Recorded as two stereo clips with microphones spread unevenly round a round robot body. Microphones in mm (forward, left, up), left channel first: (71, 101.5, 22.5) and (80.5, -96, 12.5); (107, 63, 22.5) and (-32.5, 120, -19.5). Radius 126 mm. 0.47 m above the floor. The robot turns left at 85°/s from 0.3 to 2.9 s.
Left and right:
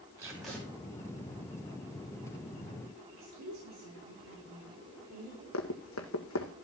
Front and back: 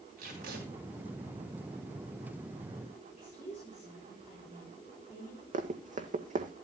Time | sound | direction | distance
0.2 | tape being pulled | 165° right | 3 m
3.1 | a woman speaking | 90° right | 7 m
5.5 | running footsteps | 120° left | 1.6 m